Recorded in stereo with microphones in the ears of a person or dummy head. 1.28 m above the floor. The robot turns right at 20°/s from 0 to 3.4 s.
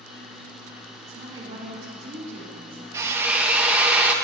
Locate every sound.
1.1 s a woman speaking: 170° right, 4 m; by 2.8 s 135° right, 4 m
2.9 s a drill: 15° right (ahead or behind), 0.9 m; by 4.1 s 10° right (ahead or behind), 0.9 m